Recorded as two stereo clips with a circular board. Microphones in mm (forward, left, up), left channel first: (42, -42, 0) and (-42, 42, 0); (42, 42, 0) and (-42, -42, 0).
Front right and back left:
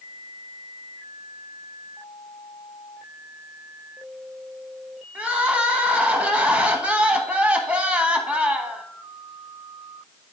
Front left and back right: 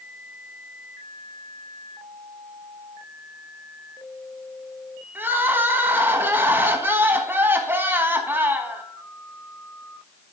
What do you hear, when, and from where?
5.2 s crying: 165° right, 1.1 m